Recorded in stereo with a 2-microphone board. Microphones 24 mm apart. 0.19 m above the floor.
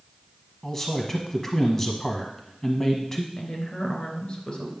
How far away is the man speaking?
About 1.2 m.